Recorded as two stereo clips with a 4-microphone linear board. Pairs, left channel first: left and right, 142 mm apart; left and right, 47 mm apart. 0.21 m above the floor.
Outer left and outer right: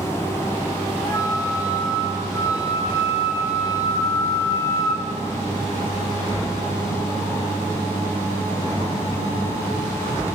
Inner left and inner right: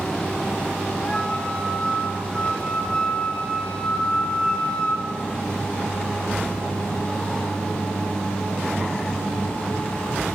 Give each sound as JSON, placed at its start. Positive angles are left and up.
{"t": 1.0, "sound": "a flute", "side_deg": 20, "distance_m": 0.8}